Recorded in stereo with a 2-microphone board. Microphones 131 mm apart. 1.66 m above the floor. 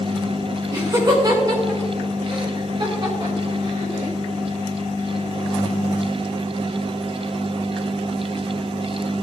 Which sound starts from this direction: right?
Laughter, at 0.7 s.